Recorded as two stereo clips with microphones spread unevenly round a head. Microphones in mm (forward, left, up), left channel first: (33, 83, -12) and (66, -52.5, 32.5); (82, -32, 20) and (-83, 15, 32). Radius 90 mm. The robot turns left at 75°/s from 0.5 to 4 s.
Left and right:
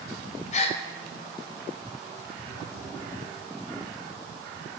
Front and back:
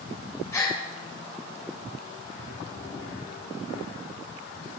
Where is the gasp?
60° left, 0.6 m; by 0.8 s 40° left, 0.6 m.